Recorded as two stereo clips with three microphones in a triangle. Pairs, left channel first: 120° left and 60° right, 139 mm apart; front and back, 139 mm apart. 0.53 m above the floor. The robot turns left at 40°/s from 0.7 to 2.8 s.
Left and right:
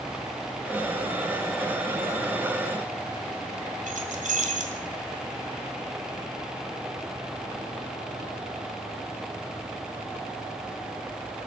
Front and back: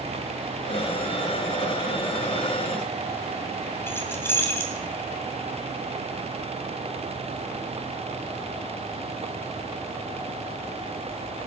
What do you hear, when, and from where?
3.9 s keys jangling: 75° right, 2.5 m